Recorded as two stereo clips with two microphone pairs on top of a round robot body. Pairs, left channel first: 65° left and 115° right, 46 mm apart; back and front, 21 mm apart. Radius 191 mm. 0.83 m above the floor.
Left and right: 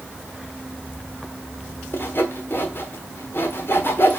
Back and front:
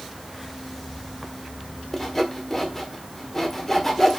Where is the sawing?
110° left, 1.5 m.